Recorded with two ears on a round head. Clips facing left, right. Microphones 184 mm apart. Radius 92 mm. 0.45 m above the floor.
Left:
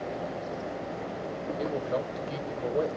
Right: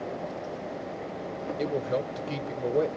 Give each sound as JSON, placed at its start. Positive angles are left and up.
{"t": 1.6, "sound": "a man speaking", "side_deg": -35, "distance_m": 1.5}